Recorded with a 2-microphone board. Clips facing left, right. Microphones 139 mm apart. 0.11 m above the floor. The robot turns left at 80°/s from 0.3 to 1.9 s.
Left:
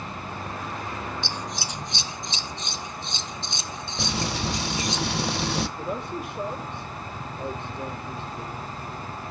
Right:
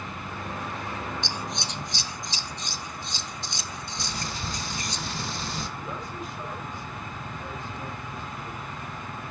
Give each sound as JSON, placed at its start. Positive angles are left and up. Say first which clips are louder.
{"t": 1.2, "sound": "scissors", "louder": "left 1 dB", "side_deg": -20, "distance_m": 0.9}
{"t": 4.0, "sound": "frying", "louder": "left 9 dB", "side_deg": 75, "distance_m": 0.9}
{"t": 5.8, "sound": "a man speaking", "louder": "left 5 dB", "side_deg": 65, "distance_m": 4.5}